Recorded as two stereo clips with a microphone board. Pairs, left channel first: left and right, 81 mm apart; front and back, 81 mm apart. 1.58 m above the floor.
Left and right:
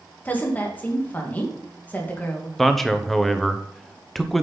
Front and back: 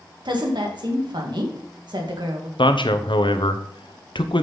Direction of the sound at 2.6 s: Straight ahead.